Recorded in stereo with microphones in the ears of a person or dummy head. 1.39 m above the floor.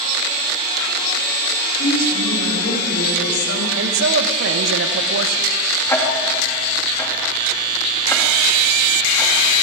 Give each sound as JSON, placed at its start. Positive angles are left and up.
{"t": 1.8, "sound": "a woman speaking", "side_deg": 85, "distance_m": 8.5}
{"t": 3.8, "sound": "a man speaking", "side_deg": -65, "distance_m": 1.3}
{"t": 5.9, "sound": "ticking", "side_deg": 15, "distance_m": 2.5}